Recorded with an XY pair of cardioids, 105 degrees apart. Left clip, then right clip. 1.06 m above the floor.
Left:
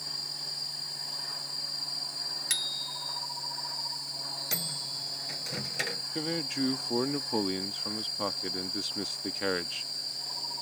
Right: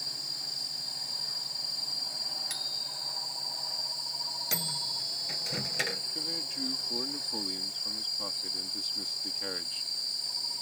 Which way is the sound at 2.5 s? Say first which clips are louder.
Left 2 dB; 65° left.